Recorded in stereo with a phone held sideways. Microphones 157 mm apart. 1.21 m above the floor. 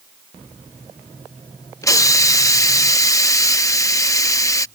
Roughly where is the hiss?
Left.